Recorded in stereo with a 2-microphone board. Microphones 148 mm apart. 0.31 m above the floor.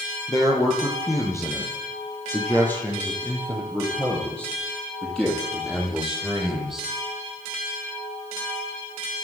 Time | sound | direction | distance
0.3 | a man speaking | 25° left (ahead or behind) | 7 m